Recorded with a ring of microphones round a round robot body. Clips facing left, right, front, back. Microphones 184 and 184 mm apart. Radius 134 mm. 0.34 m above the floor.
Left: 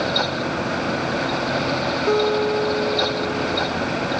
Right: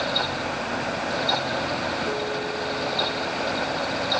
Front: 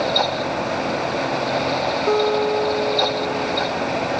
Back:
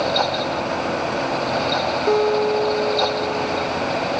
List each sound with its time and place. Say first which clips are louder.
2.1 s a guitar: left 10 dB, back 1 dB; 100° left